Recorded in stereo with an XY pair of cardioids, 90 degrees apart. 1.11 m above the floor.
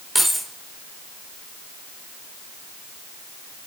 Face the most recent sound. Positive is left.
turn(degrees=0)